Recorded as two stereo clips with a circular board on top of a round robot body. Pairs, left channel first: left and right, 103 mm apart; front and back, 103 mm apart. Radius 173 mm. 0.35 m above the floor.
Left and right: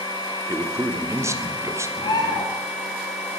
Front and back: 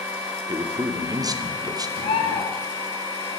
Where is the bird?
35° left, 0.9 m.